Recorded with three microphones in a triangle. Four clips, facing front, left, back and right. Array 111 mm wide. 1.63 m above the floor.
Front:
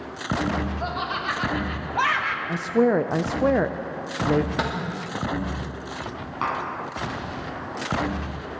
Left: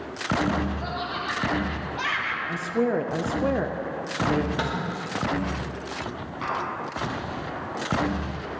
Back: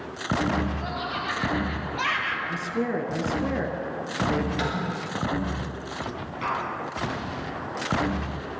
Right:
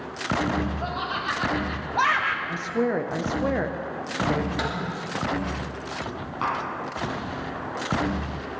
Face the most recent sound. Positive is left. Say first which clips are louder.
# right 2 dB, front 2 dB
turn(degrees=-25)